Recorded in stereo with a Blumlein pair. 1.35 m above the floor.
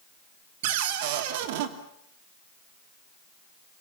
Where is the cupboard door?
50° right, 2.5 m.